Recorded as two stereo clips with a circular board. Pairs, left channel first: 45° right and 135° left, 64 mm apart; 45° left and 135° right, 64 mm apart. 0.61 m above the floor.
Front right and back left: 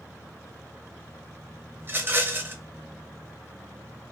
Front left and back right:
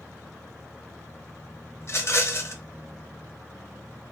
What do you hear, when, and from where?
1.8 s a rattle: 85° left, 0.5 m